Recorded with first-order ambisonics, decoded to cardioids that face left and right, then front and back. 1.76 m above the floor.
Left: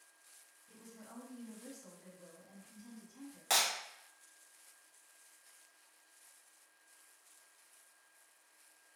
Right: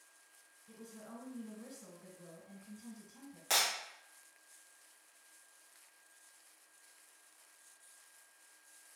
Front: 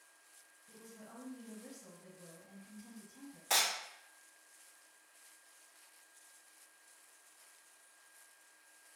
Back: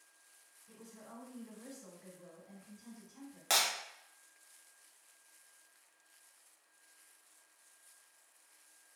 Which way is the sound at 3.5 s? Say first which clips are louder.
Even, back 1 dB; straight behind.